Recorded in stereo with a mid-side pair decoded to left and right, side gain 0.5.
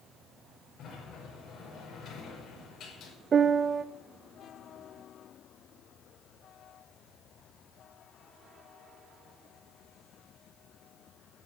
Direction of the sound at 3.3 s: 45° right.